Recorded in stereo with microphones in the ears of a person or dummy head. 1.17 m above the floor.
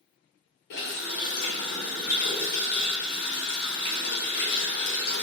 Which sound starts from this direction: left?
A running tap, at 0.7 s.